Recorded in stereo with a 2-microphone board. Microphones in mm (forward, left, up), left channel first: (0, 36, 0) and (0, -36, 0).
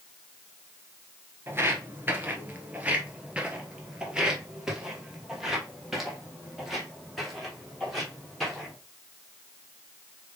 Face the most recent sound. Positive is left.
turn(degrees=0)  # may be behind; listen again after turning